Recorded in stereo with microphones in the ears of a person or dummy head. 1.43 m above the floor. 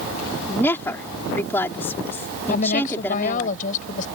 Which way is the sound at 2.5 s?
45° left (ahead or behind).